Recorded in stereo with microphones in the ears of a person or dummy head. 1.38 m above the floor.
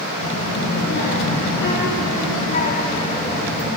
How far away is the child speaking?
About 4.5 m.